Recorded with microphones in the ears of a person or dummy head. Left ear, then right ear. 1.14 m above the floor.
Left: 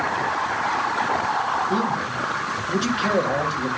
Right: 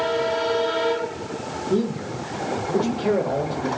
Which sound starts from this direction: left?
A man speaking, at 1.7 s.